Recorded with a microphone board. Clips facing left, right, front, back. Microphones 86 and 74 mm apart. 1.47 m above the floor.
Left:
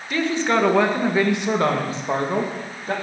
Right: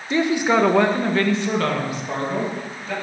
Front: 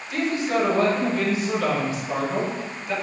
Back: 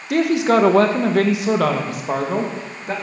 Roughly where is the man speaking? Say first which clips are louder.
Right 2 dB, back 8 dB; behind right.